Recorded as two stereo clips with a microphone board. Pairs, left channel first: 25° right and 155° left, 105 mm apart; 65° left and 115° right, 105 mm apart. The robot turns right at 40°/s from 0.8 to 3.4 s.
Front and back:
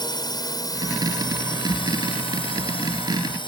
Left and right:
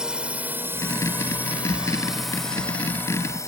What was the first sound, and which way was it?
A drone, 35° right.